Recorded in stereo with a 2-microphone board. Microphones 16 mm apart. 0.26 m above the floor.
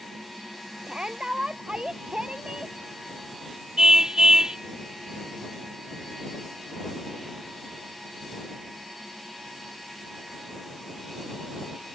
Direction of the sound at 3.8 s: 50° right (ahead or behind).